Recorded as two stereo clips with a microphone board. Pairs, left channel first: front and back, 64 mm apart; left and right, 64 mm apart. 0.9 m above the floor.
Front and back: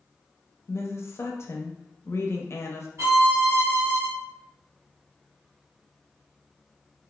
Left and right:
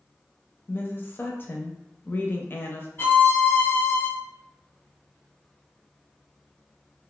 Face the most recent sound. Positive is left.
turn(degrees=145)